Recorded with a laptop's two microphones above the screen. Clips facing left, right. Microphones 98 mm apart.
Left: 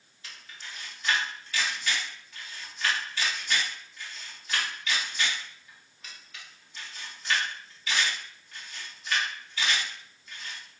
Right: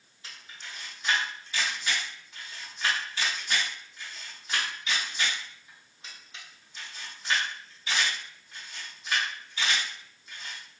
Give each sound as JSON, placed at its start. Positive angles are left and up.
{"t": 0.2, "sound": "a camera shutter", "side_deg": -25, "distance_m": 0.7}